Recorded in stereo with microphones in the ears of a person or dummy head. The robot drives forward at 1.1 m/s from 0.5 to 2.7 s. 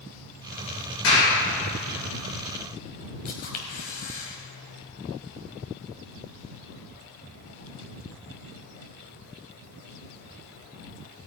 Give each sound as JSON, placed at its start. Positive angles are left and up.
{"t": 1.0, "sound": "a clap", "side_deg": 70, "distance_m": 5.5}
{"t": 3.2, "sound": "a camera shutter", "side_deg": 50, "distance_m": 2.0}